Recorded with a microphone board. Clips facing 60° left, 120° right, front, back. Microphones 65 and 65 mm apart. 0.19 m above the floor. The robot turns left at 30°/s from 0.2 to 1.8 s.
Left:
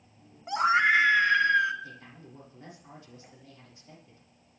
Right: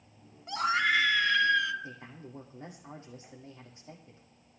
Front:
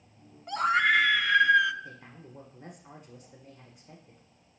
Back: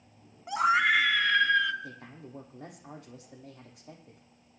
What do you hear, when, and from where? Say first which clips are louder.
0.5 s a scream: left 5 dB, even; 110° left, 1.2 m; by 1.7 s 70° left, 1.2 m
1.8 s a man speaking: right 1 dB, back 2 dB; straight behind, 6.5 m